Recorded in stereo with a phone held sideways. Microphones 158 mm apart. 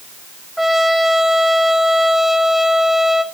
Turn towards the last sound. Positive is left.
turn(degrees=0)  # may be behind; listen again after turning